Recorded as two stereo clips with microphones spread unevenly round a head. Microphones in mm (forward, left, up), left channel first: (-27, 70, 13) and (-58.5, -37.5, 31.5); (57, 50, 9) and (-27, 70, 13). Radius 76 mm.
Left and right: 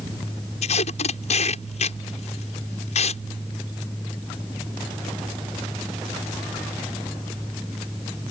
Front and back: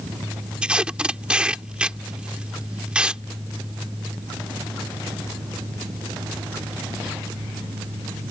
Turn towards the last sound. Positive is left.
turn(degrees=90)